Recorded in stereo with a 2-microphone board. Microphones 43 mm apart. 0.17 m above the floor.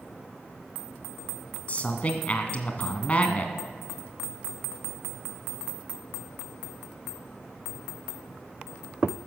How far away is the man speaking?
About 1.7 m.